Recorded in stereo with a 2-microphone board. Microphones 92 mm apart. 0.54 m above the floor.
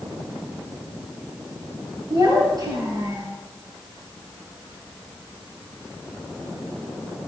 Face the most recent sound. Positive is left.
turn(degrees=-40)  # may be behind; listen again after turning